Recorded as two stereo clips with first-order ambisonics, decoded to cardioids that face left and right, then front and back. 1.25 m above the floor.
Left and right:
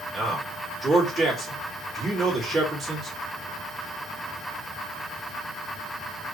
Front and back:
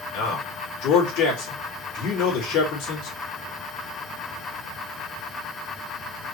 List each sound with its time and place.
0.1 s a man speaking: 10° right, 2.5 m